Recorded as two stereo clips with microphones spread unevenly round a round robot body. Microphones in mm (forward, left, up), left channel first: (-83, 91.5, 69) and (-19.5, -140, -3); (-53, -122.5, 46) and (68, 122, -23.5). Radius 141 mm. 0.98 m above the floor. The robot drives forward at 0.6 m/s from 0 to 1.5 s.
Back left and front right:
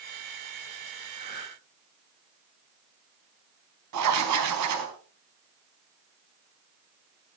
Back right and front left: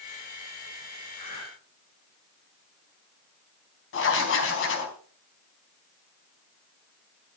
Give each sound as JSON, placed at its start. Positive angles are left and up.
{"t": 1.1, "sound": "breathing", "azimuth_deg": -140, "distance_m": 7.5}
{"t": 3.9, "sound": "writing", "azimuth_deg": -70, "distance_m": 4.0}